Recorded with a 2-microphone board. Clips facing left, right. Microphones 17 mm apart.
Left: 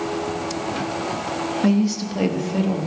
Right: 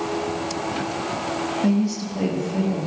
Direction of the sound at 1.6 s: 25° left (ahead or behind).